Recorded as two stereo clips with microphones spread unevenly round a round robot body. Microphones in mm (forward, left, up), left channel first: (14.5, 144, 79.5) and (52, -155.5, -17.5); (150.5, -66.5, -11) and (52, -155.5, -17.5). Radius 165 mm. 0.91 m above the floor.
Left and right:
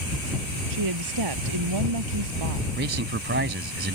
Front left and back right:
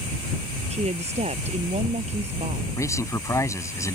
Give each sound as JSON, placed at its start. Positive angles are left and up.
{"t": 0.7, "sound": "a woman speaking", "azimuth_deg": -100}
{"t": 2.8, "sound": "a man speaking", "azimuth_deg": -25}